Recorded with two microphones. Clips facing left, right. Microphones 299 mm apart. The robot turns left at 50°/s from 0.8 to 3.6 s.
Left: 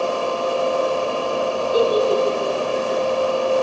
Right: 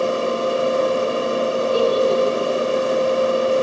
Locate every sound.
1.7 s a giggle: 25° left (ahead or behind), 9.5 m; by 2.7 s 70° left (ahead or behind), 9.5 m